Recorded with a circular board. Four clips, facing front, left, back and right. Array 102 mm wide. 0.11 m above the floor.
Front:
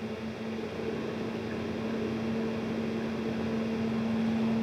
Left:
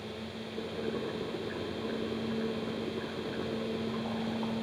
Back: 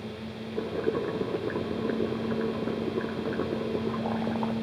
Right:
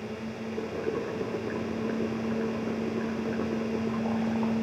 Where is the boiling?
160° right, 2.5 m.